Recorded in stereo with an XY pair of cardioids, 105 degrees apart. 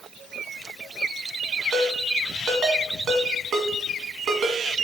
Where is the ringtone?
65° right, 1.7 m.